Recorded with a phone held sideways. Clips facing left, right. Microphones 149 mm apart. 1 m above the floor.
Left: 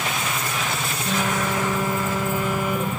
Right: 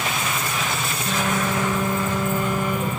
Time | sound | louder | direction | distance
1.1 | a phone buzzing | even | 10° left (ahead or behind) | 8.5 m